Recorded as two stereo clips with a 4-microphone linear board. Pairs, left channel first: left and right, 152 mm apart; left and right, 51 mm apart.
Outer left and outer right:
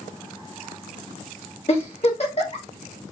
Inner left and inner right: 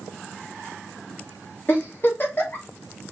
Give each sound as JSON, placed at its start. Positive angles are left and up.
{"t": 1.7, "sound": "a giggle", "side_deg": 45, "distance_m": 1.7}